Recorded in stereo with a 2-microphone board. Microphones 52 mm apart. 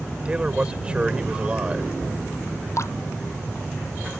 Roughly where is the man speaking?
Right.